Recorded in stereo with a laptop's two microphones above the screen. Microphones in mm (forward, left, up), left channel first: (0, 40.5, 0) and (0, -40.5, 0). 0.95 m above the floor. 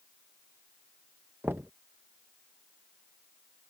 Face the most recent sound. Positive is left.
turn(degrees=-25)  # may be behind; listen again after turning